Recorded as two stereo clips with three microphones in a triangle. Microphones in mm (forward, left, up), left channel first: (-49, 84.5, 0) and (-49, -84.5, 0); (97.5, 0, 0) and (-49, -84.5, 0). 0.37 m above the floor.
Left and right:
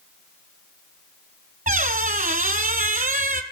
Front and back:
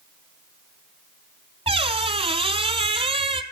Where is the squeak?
100° right, 0.6 m.